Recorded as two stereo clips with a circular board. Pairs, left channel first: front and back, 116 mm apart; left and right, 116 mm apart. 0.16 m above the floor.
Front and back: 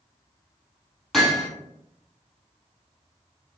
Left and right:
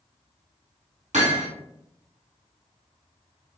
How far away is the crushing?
I don't hear crushing.